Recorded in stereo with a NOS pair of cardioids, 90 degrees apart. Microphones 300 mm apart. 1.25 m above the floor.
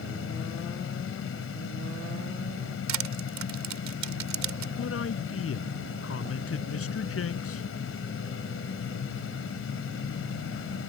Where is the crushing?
65° right.